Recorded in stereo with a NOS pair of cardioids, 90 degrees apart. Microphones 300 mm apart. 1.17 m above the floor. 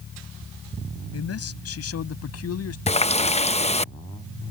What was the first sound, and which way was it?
A man speaking, 55° left.